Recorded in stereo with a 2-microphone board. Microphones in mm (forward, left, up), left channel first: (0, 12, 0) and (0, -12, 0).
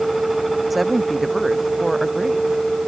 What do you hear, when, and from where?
0.7 s a woman speaking: 5° right (ahead or behind)